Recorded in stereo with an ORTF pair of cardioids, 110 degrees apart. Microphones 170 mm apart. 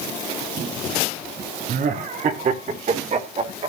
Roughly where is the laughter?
Ahead right.